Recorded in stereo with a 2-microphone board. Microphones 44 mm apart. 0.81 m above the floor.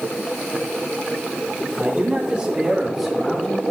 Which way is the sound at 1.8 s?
45° right (ahead or behind).